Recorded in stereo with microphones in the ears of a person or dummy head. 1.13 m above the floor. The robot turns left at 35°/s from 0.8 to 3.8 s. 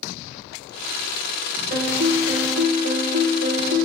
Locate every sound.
1.7 s a piano: 45° right, 2.5 m; by 3.9 s 115° right, 2.5 m